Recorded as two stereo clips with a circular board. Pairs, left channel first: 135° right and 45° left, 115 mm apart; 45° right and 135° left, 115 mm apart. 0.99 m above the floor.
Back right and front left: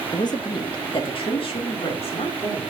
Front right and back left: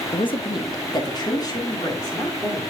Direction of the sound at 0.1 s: 80° right.